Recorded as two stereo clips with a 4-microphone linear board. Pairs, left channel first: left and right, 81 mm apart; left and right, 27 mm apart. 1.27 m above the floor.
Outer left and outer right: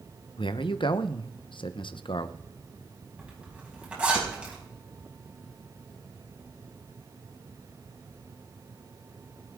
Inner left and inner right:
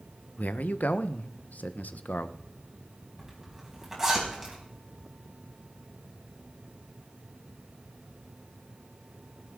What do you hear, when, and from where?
0.4 s a man speaking: 80° left, 0.9 m
3.2 s a zipper: 15° right (ahead or behind), 5 m